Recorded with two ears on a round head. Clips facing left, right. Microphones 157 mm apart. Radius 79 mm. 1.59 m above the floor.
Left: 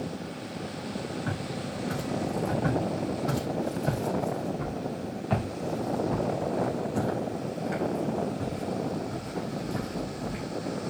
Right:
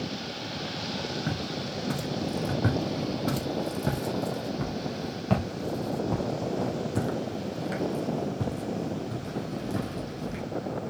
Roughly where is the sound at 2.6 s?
Right.